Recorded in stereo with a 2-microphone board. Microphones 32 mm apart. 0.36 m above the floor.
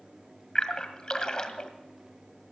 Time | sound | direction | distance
0.6 | a splash | 25° left (ahead or behind) | 1.5 m